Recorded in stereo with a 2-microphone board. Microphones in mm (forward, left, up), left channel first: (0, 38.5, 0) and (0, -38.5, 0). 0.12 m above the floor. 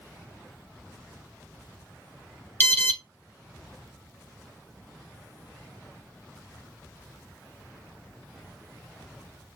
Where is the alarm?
30° left (ahead or behind), 1.1 m.